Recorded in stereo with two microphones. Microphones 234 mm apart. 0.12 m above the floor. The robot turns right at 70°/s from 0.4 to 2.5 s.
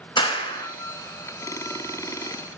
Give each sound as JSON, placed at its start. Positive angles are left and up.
{"t": 0.2, "sound": "a clap", "side_deg": 20, "distance_m": 0.9}